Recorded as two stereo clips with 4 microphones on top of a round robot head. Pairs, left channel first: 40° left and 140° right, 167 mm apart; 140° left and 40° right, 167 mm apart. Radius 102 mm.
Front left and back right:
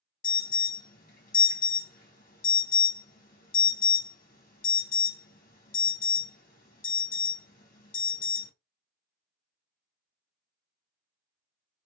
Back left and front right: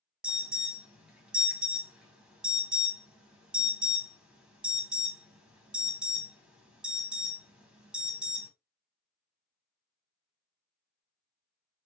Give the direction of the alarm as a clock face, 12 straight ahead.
11 o'clock.